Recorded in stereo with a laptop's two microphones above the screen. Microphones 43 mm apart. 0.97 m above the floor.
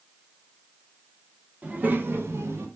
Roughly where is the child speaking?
Right.